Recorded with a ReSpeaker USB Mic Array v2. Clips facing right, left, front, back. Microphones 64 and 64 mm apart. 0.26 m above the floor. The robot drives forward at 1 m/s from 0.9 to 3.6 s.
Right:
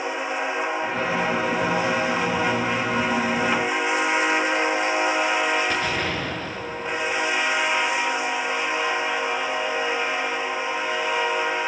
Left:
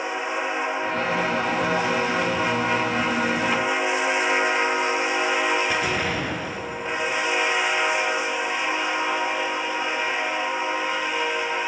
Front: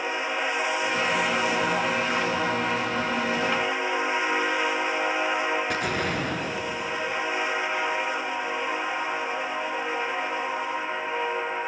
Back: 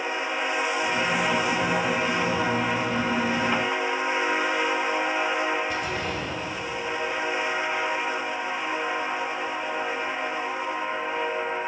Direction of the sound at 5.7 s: 15° left.